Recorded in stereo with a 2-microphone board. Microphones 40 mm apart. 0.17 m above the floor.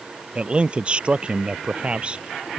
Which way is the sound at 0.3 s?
30° right (ahead or behind).